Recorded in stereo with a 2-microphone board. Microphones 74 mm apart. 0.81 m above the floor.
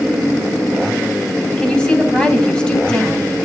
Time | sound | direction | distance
1.6 | a woman speaking | 20° left (ahead or behind) | 4 m